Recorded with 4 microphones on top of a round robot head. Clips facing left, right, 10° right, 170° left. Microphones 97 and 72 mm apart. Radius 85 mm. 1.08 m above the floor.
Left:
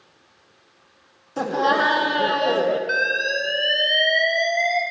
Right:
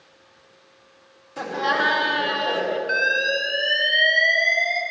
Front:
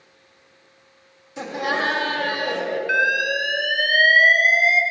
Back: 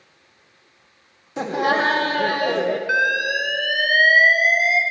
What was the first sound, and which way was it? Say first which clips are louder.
Laughter: left 4 dB, back 4 dB; 140° left.